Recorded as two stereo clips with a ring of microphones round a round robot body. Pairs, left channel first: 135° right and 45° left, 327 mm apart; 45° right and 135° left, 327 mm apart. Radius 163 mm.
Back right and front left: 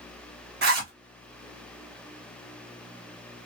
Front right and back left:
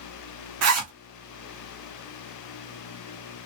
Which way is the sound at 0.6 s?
100° left.